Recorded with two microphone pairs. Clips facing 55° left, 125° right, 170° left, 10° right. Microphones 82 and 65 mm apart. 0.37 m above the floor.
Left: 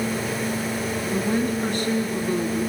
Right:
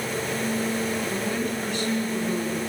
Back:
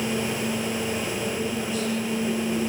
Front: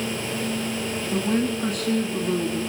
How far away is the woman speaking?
About 3.5 m.